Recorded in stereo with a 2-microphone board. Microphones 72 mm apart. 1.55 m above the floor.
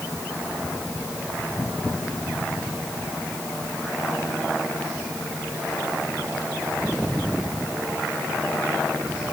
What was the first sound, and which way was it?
Only background noise.